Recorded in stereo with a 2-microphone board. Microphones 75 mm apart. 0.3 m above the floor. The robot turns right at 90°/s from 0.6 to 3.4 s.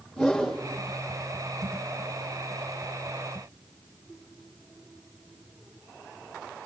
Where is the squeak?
I don't hear a squeak.